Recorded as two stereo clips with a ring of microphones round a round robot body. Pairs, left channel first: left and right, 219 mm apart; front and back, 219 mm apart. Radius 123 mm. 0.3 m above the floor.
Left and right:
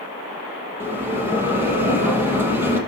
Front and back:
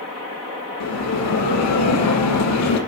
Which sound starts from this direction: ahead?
A bell, at 0.8 s.